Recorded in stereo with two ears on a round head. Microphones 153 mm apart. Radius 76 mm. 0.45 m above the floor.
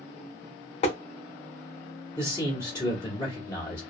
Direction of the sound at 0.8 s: 35° left (ahead or behind).